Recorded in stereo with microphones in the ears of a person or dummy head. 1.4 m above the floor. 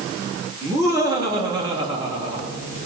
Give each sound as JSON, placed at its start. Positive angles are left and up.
{"t": 0.6, "sound": "laughter", "side_deg": -20, "distance_m": 3.0}